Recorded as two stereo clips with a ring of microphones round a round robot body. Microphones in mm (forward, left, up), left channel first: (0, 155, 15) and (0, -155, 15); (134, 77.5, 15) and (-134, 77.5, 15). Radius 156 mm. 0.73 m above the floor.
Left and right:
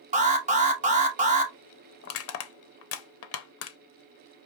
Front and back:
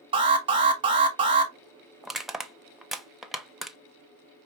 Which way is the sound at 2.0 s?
90° left.